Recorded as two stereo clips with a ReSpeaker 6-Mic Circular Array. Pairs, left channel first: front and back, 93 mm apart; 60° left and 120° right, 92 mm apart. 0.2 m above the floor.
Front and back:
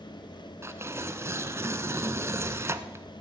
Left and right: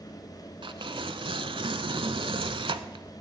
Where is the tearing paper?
120° right, 0.7 m.